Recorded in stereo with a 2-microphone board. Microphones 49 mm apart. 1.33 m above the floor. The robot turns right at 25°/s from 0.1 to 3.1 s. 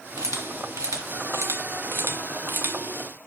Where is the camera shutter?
75° right (ahead or behind), 1.9 m; by 2.8 s 35° right (ahead or behind), 1.9 m.